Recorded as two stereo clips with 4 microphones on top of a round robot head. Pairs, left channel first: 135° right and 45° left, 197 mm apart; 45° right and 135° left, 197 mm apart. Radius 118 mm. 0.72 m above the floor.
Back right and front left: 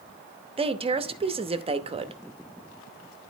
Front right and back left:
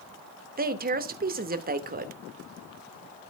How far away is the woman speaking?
About 0.9 m.